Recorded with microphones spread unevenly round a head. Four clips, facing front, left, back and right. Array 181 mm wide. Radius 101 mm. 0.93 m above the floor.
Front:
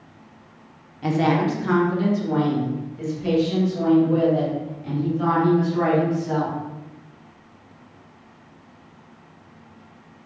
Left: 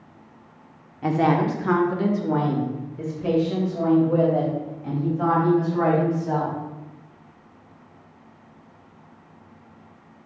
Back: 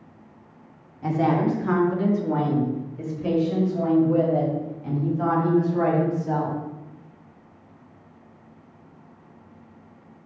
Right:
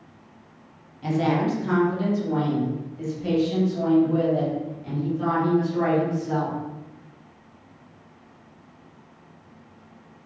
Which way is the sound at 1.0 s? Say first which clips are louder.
Left 3 dB, front 1 dB; 70° left.